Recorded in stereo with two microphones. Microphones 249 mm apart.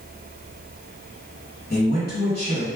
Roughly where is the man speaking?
Left.